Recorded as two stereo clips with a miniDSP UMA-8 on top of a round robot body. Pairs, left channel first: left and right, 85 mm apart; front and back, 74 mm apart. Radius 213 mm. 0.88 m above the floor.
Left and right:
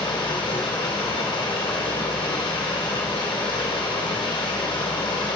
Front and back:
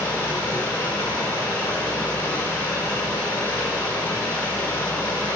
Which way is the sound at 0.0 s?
60° left.